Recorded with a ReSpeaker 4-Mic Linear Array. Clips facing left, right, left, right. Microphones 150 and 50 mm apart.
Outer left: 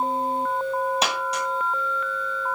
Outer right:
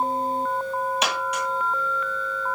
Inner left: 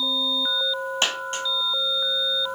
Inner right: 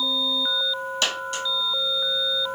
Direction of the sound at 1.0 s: 35° left (ahead or behind).